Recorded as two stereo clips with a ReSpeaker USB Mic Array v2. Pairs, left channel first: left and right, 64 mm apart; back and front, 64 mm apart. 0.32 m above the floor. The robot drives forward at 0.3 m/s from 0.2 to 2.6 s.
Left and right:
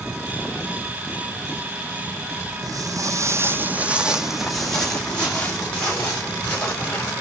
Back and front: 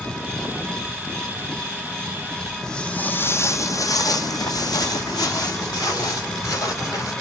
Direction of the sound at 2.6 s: 100° right.